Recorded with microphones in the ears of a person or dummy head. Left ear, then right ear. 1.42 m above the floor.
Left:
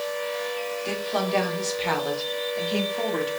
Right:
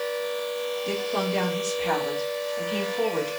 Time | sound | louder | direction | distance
0.8 | a woman speaking | left 2 dB | 35° left (ahead or behind) | 4.5 m